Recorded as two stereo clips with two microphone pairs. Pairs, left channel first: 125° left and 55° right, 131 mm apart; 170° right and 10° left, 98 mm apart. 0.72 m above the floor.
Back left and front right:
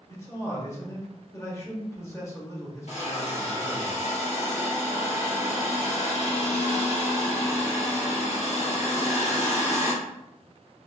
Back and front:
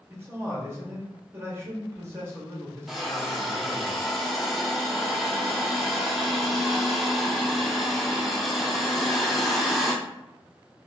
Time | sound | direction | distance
0.1 | a man speaking | 65° left | 1.3 m
2.9 | a hiss | 100° left | 1.2 m